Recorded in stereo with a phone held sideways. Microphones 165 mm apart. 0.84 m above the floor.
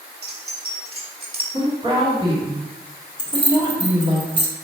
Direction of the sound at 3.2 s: 30° left (ahead or behind).